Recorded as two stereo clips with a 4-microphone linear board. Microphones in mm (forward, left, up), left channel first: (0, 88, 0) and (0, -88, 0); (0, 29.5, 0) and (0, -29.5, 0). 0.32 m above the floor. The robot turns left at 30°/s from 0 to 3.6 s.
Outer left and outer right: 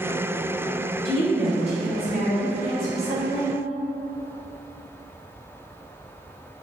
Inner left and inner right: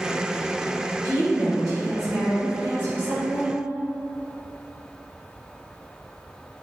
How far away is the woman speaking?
About 1.5 m.